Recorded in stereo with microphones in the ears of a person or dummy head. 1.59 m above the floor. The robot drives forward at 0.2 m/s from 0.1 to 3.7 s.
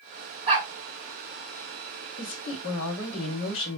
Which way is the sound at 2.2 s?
70° left (ahead or behind).